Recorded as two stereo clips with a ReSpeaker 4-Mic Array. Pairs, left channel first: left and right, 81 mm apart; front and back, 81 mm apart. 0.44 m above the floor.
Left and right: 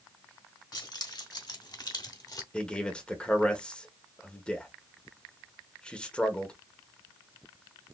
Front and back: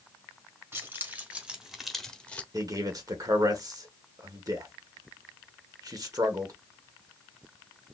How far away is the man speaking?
About 1.2 m.